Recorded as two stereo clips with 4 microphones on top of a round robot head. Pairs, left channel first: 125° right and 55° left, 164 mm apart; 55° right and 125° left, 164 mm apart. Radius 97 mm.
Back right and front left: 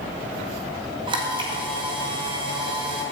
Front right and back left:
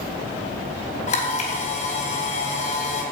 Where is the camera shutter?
5° right, 2.5 m.